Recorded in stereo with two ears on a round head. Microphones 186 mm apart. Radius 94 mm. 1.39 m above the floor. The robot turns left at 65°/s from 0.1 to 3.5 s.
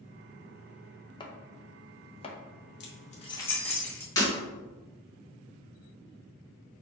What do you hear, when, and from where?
1.2 s chopping: 20° left (ahead or behind), 0.6 m; by 2.4 s 25° left (ahead or behind), 0.6 m
2.8 s keys jangling: 55° left (ahead or behind), 1.1 m; by 4.1 s 10° left (ahead or behind), 1.1 m
4.2 s breaking glass: 20° left (ahead or behind), 2.0 m